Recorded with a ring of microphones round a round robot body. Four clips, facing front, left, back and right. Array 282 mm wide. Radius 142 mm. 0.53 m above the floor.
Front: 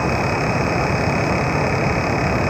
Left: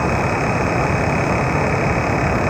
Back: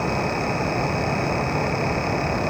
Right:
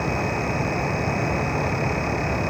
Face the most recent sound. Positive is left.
No sound to turn to.